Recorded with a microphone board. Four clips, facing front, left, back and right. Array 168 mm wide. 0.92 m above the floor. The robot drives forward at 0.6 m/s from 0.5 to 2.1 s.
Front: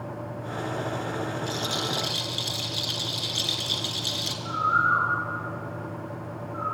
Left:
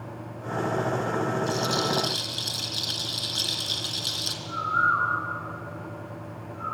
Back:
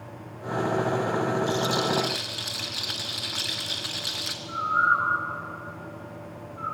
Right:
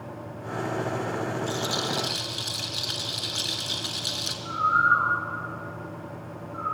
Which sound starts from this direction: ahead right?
A bird, at 4.5 s.